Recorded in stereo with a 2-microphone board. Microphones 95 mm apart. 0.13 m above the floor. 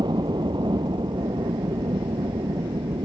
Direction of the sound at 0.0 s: 45° right (ahead or behind).